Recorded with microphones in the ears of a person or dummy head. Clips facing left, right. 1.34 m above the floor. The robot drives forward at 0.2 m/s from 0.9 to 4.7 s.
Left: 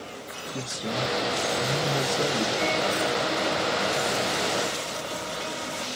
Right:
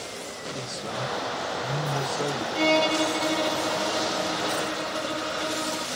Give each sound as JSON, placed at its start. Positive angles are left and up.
{"t": 0.5, "sound": "a man speaking", "side_deg": 10, "distance_m": 1.3}
{"t": 2.5, "sound": "a violin", "side_deg": -85, "distance_m": 0.6}